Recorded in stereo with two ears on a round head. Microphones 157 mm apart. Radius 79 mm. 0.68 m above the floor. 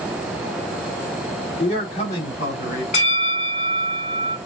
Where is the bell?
40° left (ahead or behind), 2.5 m.